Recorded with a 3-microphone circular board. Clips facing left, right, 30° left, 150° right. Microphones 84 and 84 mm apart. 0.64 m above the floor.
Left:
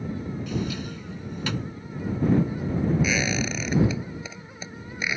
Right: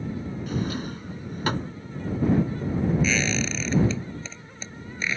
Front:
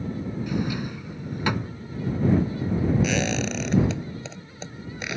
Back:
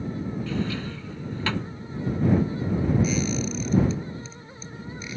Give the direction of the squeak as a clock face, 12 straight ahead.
12 o'clock.